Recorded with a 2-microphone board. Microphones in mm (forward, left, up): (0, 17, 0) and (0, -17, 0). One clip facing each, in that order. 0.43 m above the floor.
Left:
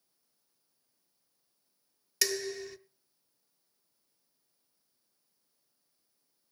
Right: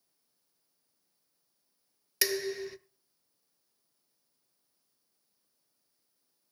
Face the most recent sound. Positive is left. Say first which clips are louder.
# right 2 dB
turn(degrees=-15)  # may be behind; listen again after turning